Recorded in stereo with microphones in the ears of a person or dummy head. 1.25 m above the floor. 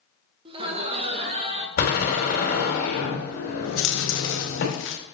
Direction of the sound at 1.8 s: 50° left (ahead or behind).